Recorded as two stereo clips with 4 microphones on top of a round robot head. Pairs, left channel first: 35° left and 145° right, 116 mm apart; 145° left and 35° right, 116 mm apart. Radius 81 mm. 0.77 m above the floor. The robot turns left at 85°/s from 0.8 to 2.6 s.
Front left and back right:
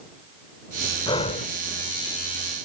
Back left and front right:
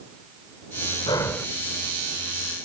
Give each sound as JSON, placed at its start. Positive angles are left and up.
{"t": 1.1, "sound": "breathing", "azimuth_deg": 90}